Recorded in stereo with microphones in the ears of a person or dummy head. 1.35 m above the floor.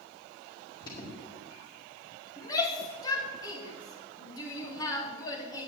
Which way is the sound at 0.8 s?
20° left (ahead or behind).